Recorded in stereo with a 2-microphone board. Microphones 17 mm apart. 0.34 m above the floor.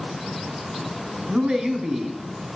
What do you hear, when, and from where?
1.3 s a man speaking: 65° right (ahead or behind), 3 m